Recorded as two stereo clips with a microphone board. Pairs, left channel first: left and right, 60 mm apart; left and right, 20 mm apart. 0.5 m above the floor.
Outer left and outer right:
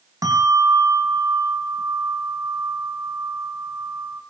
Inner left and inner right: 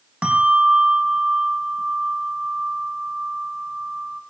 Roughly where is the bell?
Right.